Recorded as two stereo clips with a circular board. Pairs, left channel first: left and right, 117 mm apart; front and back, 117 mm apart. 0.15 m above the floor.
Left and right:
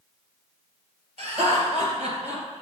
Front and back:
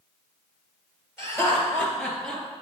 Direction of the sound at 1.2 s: 65° right.